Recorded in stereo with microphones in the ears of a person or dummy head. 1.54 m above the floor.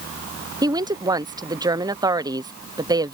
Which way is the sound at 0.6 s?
10° right (ahead or behind).